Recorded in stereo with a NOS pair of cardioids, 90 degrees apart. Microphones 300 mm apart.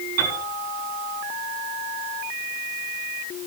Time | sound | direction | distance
0.2 | a piano | 55° right | 6.5 m